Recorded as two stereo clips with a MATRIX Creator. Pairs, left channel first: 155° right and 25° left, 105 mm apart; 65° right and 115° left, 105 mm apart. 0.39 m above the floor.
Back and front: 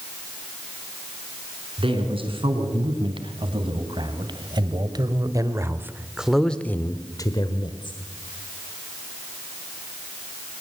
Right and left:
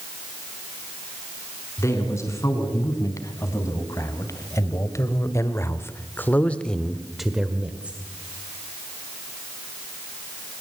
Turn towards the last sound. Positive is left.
turn(degrees=-170)